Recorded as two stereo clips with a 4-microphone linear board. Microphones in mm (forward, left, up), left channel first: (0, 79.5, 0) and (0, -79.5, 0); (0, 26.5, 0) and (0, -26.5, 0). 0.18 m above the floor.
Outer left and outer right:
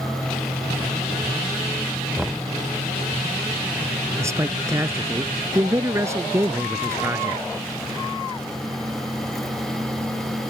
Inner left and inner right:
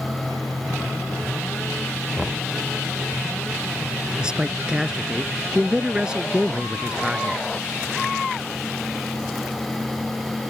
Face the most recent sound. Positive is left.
turn(degrees=-15)  # may be behind; listen again after turning